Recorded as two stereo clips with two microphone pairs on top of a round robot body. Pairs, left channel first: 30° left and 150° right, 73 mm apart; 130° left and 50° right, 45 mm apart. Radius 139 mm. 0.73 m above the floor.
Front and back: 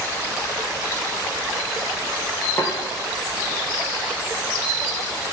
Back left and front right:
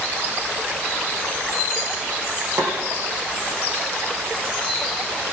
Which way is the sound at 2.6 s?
30° right.